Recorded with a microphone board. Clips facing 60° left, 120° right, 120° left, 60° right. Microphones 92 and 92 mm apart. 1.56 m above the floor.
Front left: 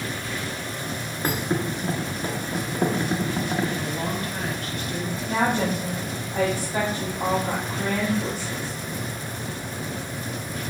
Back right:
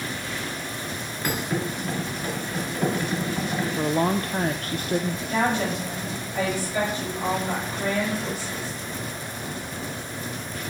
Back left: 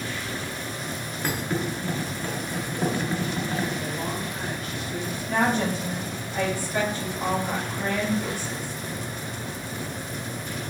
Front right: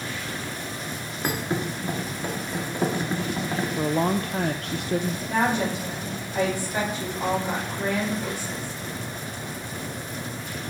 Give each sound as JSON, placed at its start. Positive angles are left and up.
{"t": 1.2, "sound": "a thud", "azimuth_deg": 5, "distance_m": 1.6}
{"t": 3.8, "sound": "a woman speaking", "azimuth_deg": -80, "distance_m": 0.5}
{"t": 5.3, "sound": "a woman speaking", "azimuth_deg": 10, "distance_m": 5.0}